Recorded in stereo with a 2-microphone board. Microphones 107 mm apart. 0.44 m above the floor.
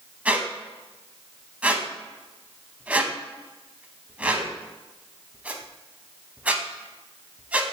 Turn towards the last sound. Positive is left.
turn(degrees=-15)  # may be behind; listen again after turning